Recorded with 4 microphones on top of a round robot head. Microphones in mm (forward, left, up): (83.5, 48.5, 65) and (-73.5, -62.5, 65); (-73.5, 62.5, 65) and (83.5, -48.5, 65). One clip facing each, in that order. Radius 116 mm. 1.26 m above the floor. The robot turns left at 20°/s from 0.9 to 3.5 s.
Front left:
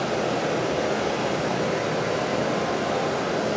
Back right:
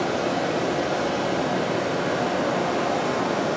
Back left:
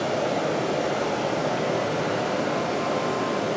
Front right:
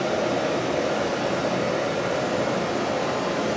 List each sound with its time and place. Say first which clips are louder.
0.0 s running water: back right 1 dB, front right 1 dB; 30° left, 4 m; by 3.6 s 20° right, 4 m